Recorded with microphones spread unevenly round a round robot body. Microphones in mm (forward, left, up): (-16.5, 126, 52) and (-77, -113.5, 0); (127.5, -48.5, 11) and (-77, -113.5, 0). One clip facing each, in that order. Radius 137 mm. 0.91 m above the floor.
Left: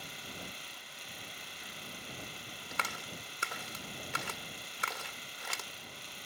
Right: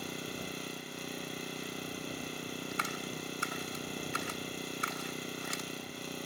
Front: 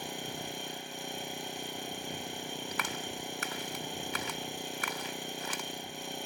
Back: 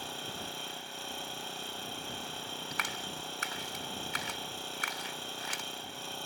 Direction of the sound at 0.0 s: 55° right.